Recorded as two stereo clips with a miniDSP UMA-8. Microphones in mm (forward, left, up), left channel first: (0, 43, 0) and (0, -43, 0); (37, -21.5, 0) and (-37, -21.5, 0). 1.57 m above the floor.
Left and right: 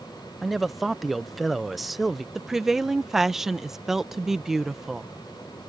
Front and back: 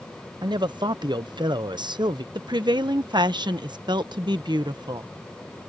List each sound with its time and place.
0.4 s a man speaking: straight behind
2.4 s a woman speaking: 175° right